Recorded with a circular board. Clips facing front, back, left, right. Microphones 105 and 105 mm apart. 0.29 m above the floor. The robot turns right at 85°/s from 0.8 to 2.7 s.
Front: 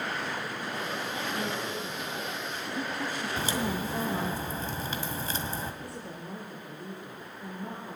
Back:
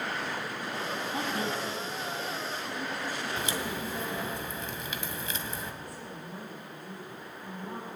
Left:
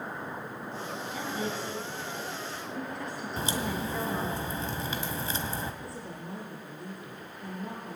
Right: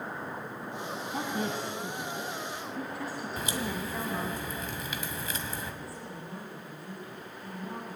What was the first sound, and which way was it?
A woman speaking, 135° right.